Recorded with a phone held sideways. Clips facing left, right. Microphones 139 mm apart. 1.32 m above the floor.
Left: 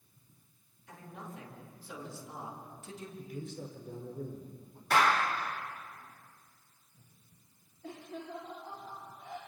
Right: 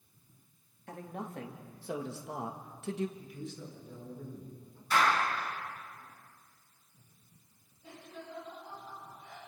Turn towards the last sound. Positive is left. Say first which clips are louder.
# left 4 dB
turn(degrees=75)  # may be behind; listen again after turning